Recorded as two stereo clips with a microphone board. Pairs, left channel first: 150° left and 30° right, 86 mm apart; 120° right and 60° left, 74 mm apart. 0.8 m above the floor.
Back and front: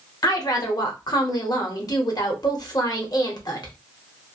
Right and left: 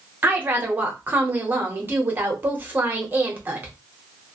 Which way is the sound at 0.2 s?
120° left.